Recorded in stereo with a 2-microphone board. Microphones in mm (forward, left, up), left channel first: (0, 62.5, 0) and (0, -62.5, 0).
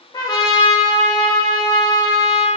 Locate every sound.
0.1 s a trumpet: 35° left (ahead or behind), 0.8 m